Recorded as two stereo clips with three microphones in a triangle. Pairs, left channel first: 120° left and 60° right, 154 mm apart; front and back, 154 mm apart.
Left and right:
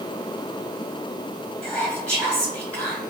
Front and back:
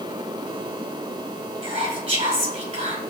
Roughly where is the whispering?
Behind.